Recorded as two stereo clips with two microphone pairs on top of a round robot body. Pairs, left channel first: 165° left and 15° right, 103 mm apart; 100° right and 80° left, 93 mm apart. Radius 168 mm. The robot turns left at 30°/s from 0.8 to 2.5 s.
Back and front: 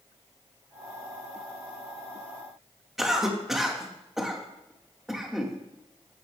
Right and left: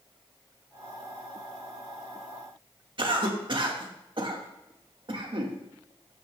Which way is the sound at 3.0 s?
75° left.